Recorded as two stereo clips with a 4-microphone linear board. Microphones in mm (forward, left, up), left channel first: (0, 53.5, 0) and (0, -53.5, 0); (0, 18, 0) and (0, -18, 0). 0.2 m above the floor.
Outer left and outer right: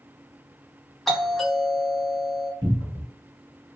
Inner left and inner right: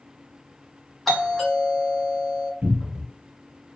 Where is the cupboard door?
40° right (ahead or behind), 1.5 m.